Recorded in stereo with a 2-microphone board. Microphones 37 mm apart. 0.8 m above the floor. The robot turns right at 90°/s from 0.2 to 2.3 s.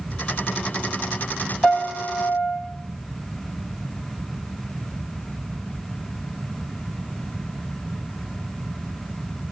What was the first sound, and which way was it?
A piano, 30° left.